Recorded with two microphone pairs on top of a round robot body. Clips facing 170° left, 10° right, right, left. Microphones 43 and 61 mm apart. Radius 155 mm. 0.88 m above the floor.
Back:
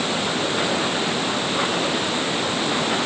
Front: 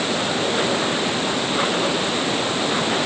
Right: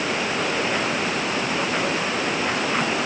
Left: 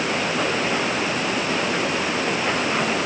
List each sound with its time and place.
Only background noise.